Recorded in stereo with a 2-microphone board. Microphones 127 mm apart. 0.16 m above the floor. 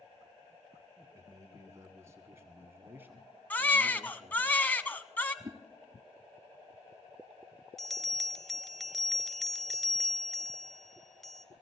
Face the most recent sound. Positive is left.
turn(degrees=0)  # may be behind; listen again after turning